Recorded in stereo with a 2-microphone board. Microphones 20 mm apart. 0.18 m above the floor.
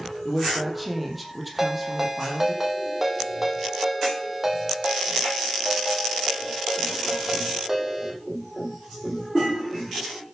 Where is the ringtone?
15° right (ahead or behind), 4.5 m.